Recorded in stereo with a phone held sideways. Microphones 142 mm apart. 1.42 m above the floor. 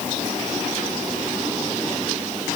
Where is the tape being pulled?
I don't hear tape being pulled.